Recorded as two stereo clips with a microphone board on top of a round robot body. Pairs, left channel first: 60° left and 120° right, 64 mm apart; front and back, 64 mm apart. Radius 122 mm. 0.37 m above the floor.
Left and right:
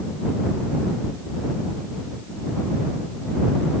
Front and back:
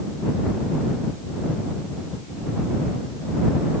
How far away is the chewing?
I don't hear chewing.